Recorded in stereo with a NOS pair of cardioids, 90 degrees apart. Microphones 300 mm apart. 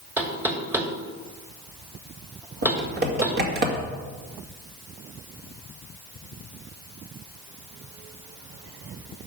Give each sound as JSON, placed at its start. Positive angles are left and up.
{"t": 0.2, "sound": "knocking", "azimuth_deg": -5, "distance_m": 2.0}
{"t": 2.6, "sound": "typing on a keyboard", "azimuth_deg": -35, "distance_m": 2.5}